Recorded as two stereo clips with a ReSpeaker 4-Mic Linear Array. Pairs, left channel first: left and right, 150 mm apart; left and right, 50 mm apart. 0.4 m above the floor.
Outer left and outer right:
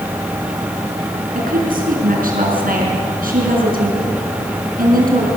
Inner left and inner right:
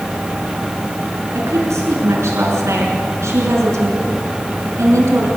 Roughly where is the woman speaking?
Right.